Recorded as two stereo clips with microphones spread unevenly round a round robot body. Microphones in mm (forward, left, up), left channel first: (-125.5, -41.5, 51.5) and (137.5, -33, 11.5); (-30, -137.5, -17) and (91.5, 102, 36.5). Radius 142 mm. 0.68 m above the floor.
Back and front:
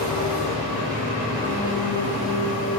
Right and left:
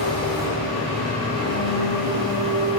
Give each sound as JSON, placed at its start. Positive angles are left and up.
{"t": 0.0, "sound": "an engine running", "azimuth_deg": 15, "distance_m": 2.0}